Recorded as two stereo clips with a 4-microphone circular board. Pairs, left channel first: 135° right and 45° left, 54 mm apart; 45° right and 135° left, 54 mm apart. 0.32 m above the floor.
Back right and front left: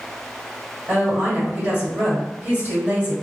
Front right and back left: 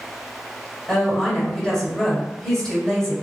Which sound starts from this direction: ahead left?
A woman speaking, at 0.9 s.